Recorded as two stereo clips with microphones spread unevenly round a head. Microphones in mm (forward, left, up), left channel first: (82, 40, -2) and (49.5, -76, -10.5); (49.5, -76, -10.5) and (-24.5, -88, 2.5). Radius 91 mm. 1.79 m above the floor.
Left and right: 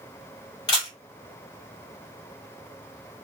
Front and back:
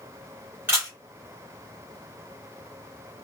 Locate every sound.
0.7 s a camera shutter: 130° left, 1.6 m